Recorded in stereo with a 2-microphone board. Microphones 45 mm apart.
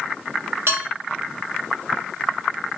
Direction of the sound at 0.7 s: 75° right (ahead or behind).